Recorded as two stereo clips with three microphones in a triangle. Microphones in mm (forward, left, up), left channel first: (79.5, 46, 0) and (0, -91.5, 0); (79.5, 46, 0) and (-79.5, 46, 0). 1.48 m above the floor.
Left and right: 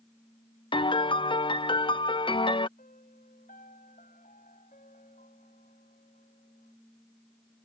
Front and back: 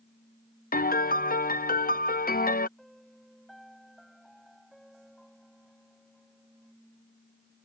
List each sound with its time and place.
0.7 s a piano: 5° left
2.8 s a piano: 90° left